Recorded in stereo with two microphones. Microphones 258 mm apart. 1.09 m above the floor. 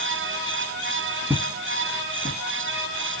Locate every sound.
1.3 s footsteps: 5° right (ahead or behind), 1.1 m; by 2.4 s 25° left (ahead or behind), 1.5 m